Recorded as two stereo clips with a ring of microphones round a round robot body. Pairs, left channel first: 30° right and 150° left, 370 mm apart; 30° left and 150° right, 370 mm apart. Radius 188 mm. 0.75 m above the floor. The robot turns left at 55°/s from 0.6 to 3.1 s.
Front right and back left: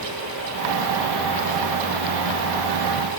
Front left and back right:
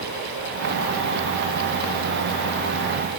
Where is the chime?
No chime in this recording.